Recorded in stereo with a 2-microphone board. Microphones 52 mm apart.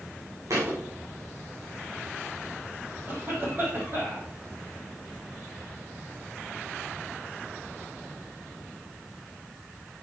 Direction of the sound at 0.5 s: 70° right (ahead or behind).